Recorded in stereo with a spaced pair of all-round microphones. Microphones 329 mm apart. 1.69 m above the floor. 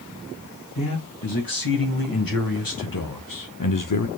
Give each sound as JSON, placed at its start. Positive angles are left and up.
{"t": 0.8, "sound": "a man speaking", "side_deg": 85, "distance_m": 2.5}